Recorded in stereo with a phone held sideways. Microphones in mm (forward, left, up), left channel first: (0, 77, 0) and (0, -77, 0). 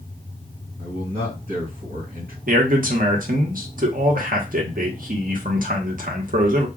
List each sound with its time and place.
0.8 s a man speaking: 65° right (ahead or behind), 1.8 m
2.5 s a man speaking: 65° right (ahead or behind), 0.9 m